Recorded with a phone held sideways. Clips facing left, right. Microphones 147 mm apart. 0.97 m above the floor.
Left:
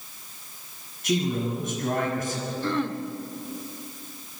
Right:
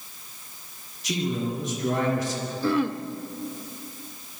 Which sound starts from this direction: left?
A man speaking, at 1.0 s.